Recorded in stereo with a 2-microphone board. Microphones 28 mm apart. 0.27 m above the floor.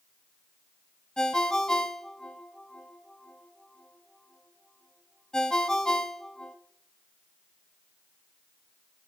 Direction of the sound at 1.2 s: 25° left (ahead or behind).